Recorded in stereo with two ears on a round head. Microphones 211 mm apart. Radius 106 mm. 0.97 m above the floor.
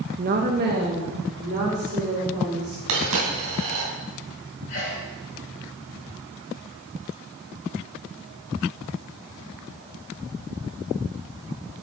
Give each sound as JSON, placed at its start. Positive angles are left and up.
{"t": 0.2, "sound": "a woman speaking", "side_deg": -35, "distance_m": 0.8}
{"t": 2.9, "sound": "a dropped coin", "side_deg": -80, "distance_m": 3.0}
{"t": 4.7, "sound": "a sneeze", "side_deg": 45, "distance_m": 4.0}